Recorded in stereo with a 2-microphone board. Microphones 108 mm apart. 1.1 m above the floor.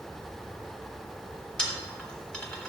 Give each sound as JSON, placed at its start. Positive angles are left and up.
{"t": 1.6, "sound": "a dropped coin", "side_deg": 10, "distance_m": 1.3}